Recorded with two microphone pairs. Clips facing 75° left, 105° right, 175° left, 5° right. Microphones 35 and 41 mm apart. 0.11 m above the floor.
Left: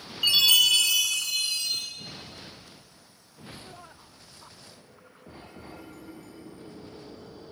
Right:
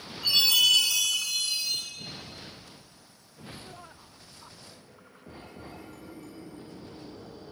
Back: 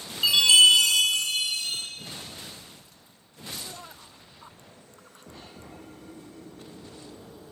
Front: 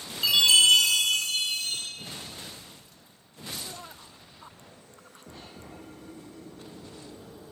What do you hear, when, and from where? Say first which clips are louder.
0.2 s a chime: left 2 dB, back 3 dB; 90° left, 1.8 m